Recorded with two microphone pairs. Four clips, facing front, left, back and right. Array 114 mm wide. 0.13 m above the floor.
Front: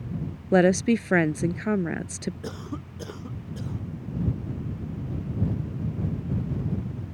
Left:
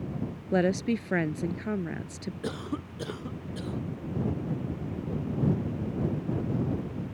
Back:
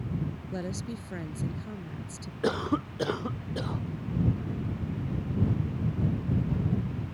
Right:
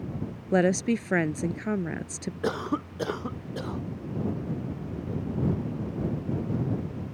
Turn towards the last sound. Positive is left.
turn(degrees=-130)